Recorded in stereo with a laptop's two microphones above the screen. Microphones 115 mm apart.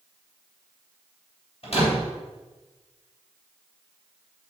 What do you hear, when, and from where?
1.6 s a door slam: 65° left (ahead or behind), 3.5 m